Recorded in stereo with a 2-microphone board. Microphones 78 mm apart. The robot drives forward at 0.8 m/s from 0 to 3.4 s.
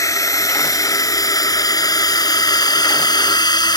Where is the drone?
45° left (ahead or behind); by 3.8 s 65° left (ahead or behind).